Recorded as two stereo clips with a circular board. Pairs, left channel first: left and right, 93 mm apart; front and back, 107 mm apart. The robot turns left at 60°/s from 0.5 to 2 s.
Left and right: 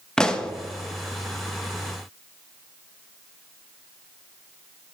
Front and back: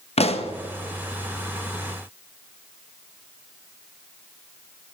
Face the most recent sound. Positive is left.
turn(degrees=-85)